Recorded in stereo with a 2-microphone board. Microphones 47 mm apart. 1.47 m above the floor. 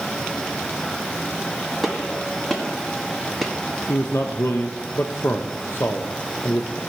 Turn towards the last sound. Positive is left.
turn(degrees=60)  # may be behind; listen again after turning